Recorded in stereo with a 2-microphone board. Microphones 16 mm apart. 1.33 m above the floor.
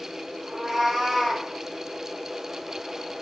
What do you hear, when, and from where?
0.5 s a cat meowing: 45° right (ahead or behind), 0.9 m; by 1.5 s centre (ahead or behind), 1.2 m